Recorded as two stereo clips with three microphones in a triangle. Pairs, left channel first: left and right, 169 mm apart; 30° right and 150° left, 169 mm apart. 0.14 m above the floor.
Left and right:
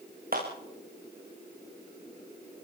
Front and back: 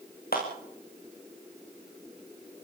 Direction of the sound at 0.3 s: 60° right.